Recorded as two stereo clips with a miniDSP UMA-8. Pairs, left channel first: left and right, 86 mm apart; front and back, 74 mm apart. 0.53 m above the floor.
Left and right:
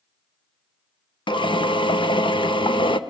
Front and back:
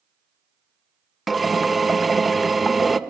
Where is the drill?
90° left, 0.7 m.